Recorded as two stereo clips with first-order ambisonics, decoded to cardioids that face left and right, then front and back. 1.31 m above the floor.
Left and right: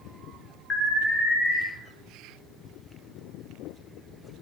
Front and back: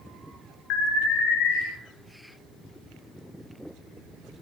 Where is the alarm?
20° left, 3.5 m.